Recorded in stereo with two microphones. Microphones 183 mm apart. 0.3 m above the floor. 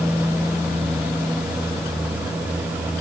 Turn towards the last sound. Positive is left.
No sound to turn to.